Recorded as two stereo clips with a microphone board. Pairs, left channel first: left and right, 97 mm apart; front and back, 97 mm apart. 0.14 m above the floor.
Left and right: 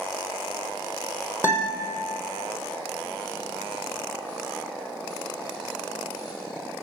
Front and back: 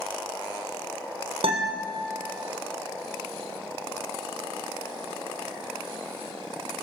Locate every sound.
1.4 s a guitar: 160° left, 4 m